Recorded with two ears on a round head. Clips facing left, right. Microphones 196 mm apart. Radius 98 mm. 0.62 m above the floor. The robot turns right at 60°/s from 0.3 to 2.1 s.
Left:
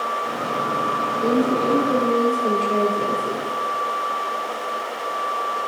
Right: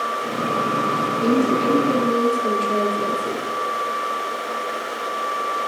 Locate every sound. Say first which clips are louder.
1.2 s a woman speaking: right 1 dB; 90° right, 1.5 m; by 3.5 s 35° right, 1.5 m